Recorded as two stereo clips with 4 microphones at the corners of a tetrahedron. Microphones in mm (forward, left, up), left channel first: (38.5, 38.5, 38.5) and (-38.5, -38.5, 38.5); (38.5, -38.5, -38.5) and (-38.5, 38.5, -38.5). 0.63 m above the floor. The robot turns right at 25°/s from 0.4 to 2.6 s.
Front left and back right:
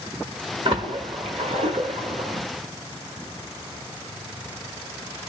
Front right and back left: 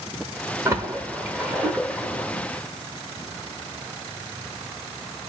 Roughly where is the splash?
Behind.